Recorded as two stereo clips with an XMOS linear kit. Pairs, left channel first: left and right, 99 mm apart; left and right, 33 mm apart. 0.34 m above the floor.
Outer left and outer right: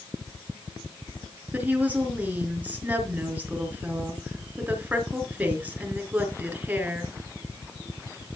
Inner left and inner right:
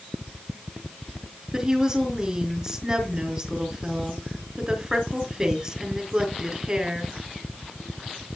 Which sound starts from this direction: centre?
A woman speaking, at 1.5 s.